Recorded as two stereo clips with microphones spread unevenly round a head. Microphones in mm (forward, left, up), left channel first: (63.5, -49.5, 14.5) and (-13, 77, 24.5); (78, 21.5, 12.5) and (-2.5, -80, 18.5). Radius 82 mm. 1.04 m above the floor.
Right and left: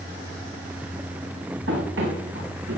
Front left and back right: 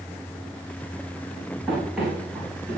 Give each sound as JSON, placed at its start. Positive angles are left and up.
{"t": 1.7, "sound": "running footsteps", "azimuth_deg": 140, "distance_m": 8.0}